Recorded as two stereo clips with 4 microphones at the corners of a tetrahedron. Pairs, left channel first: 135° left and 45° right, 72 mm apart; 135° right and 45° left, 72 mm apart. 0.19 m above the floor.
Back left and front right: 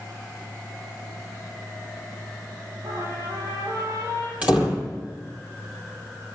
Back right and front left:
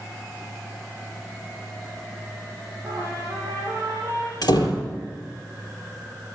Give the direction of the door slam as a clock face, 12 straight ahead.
4 o'clock.